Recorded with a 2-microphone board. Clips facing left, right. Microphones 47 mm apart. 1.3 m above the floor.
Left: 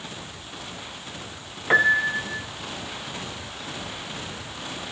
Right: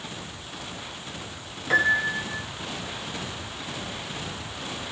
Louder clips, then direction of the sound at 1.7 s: Left 3 dB; 30° left (ahead or behind).